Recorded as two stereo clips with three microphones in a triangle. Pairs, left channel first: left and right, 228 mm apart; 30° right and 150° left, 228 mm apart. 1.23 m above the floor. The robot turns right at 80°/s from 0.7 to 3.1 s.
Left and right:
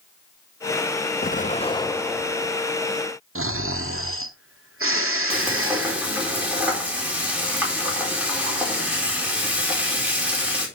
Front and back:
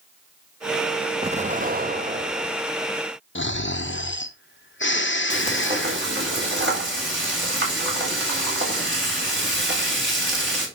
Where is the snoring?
65° right, 0.9 m.